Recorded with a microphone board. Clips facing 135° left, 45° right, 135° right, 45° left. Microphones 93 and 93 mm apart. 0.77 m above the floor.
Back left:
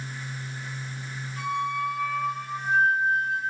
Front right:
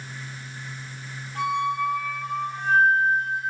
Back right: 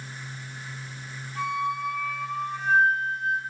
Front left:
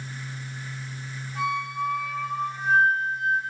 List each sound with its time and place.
1.4 s a flute: 30° right, 1.2 m